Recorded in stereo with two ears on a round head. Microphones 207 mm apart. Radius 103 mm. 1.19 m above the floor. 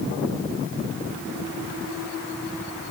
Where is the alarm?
I don't hear an alarm.